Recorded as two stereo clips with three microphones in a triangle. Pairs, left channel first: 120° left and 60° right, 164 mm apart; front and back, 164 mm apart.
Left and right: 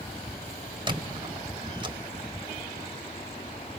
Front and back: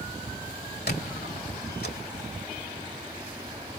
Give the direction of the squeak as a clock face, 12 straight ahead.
12 o'clock.